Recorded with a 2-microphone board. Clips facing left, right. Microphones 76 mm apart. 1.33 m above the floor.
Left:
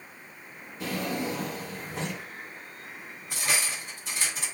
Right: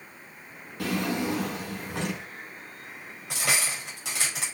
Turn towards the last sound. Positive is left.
turn(degrees=-80)